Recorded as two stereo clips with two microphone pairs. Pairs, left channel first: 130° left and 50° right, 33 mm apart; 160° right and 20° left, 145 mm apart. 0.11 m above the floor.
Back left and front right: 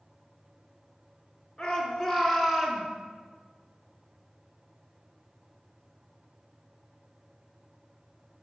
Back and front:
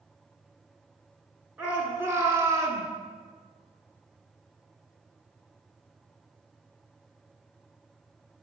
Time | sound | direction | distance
1.6 | a shout | 85° left | 1.1 m